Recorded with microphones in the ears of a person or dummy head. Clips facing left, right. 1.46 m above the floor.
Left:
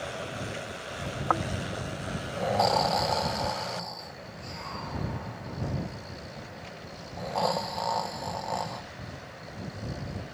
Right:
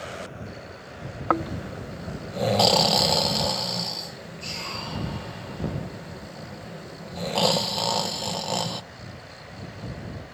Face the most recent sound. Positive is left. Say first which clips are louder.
# right 5 dB
turn(degrees=-40)  # may be behind; listen again after turning